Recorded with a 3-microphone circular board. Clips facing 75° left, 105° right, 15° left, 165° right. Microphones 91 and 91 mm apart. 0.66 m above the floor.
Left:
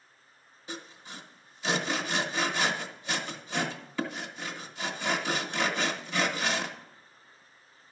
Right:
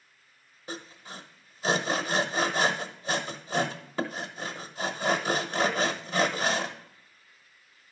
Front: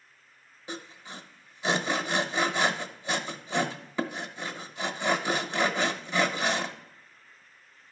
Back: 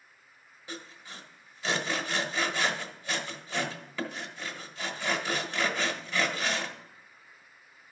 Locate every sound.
0.7 s sawing: 55° right, 1.1 m